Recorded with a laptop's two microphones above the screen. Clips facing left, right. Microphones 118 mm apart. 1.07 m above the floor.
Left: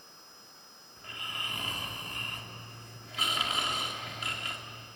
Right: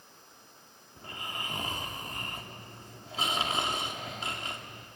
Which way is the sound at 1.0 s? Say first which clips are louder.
Right 3 dB; 30° right (ahead or behind).